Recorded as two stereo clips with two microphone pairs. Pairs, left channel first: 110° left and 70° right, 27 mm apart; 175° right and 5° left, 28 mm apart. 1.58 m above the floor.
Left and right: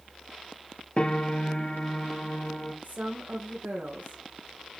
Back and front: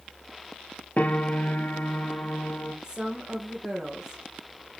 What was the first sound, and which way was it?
A piano, 160° left.